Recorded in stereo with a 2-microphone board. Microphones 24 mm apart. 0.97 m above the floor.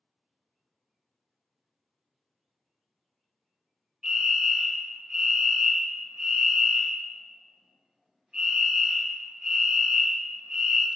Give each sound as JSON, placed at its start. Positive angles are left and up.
{"t": 4.0, "sound": "a fire alarm", "side_deg": -20, "distance_m": 1.1}